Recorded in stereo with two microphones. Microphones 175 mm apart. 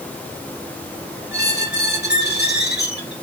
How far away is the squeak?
About 2.5 m.